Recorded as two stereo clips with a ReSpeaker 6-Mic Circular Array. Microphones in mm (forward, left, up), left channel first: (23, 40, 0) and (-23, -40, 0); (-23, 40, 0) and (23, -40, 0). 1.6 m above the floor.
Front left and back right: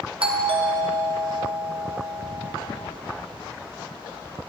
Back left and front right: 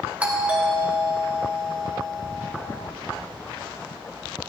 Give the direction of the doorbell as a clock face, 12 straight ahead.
5 o'clock.